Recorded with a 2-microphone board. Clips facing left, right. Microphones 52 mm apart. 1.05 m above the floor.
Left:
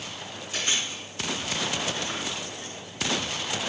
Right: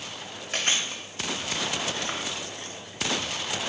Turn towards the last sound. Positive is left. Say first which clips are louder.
# right 2 dB
turn(degrees=-60)  # may be behind; listen again after turning